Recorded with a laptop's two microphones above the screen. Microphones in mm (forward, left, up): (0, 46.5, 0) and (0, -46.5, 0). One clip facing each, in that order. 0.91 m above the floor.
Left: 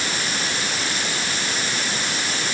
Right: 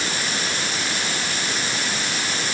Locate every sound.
Only background noise.